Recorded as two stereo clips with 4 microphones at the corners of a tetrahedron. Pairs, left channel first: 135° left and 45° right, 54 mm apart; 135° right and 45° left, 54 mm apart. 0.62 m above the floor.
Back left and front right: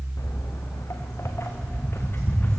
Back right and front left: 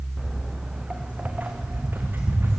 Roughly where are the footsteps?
Behind left.